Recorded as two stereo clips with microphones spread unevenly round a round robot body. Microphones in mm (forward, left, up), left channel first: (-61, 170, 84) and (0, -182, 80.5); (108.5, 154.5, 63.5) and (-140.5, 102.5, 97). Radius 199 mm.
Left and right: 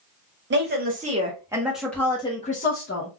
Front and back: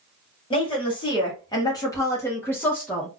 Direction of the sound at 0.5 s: 40° right.